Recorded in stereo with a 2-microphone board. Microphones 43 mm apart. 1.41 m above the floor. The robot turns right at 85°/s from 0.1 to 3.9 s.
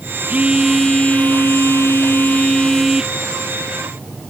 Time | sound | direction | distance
0.3 | a phone buzzing | 35° right | ?